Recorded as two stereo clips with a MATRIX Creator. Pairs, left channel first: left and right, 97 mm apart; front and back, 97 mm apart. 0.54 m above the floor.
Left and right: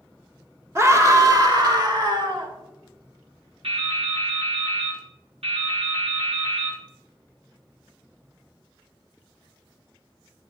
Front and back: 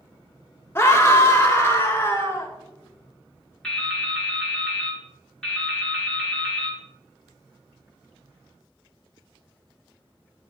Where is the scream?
45° right, 1.2 m; by 2.5 s 60° right, 2 m.